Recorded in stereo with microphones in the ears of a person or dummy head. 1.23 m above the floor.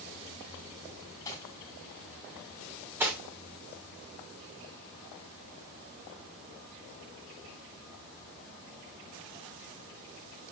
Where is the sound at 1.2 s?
20° left (ahead or behind), 4 m.